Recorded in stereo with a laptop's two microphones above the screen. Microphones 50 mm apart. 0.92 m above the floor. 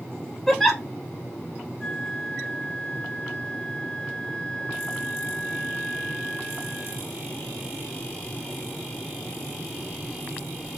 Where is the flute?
5° left (ahead or behind), 1.8 m.